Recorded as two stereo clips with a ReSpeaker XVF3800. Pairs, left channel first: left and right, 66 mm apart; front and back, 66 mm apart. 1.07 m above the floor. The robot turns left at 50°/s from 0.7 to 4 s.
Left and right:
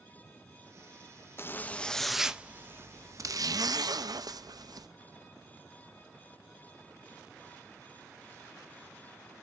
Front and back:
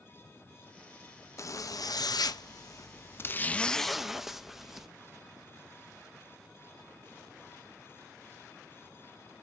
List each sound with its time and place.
1.4 s a zipper: 35° left, 0.5 m; by 4.9 s 95° right, 0.5 m